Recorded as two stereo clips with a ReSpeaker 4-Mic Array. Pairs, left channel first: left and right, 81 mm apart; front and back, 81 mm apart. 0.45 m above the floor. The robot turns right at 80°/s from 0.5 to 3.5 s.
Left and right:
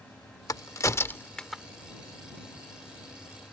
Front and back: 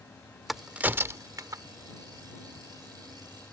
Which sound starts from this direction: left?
A crack, at 0.5 s.